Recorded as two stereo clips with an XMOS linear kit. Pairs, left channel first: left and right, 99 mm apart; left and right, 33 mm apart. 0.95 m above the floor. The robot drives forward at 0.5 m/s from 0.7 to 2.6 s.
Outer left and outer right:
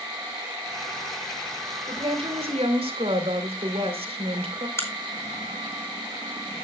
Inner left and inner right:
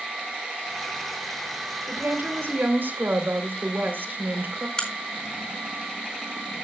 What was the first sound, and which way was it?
A woman speaking, 70° right (ahead or behind).